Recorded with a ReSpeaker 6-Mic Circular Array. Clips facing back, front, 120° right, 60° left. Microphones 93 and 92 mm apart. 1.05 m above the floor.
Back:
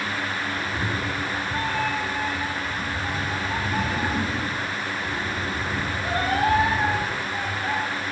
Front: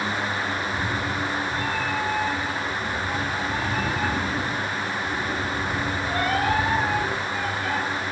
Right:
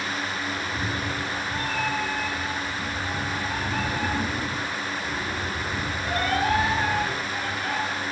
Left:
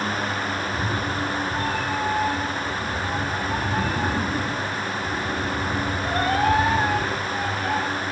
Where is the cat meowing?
140° left, 6.5 m; by 7.8 s 120° left, 12.5 m.